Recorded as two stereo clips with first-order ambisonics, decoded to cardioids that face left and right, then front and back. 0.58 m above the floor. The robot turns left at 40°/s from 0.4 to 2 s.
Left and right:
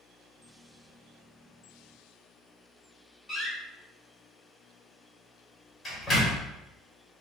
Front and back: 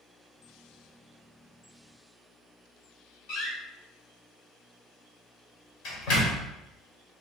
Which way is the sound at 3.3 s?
10° left.